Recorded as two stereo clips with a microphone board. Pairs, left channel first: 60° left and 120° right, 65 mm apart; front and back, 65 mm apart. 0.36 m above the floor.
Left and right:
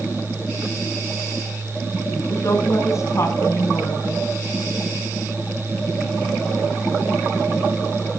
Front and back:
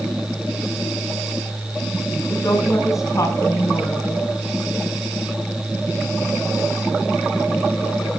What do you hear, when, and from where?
2.3 s a woman speaking: 25° left, 3.5 m